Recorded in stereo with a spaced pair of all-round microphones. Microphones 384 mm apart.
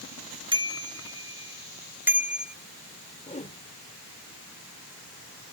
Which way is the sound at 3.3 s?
20° left (ahead or behind).